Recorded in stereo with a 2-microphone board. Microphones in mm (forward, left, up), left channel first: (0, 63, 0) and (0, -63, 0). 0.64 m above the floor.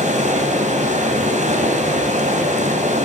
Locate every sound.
0.0 s running water: 70° right (ahead or behind), 3 m